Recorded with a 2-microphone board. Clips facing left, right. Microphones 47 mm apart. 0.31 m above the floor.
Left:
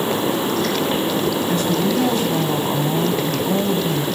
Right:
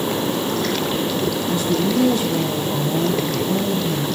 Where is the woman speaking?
60° left (ahead or behind), 2 m.